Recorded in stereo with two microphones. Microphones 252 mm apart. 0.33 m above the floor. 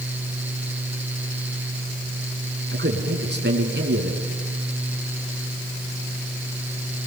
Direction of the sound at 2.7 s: 45° right (ahead or behind).